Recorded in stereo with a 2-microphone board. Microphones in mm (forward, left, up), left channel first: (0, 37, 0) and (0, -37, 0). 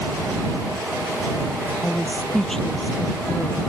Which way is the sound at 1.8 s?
10° left (ahead or behind).